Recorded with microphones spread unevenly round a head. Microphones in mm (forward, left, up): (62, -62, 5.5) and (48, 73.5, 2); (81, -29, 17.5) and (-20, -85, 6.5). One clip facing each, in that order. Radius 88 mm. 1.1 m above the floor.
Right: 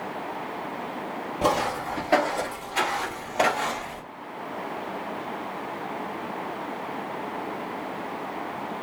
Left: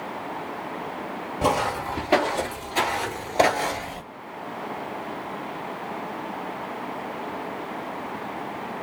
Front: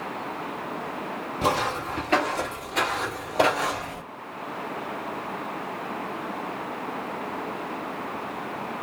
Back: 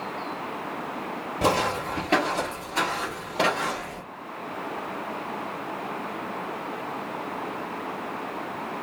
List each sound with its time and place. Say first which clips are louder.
1.4 s footsteps: left 1 dB, back 2 dB; straight behind, 1.5 m; by 4.0 s 75° left, 1.4 m